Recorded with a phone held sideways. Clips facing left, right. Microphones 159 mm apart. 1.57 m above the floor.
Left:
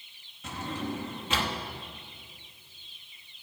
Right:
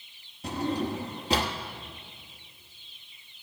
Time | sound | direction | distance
0.4 | a drawer | 35° right (ahead or behind) | 1.1 m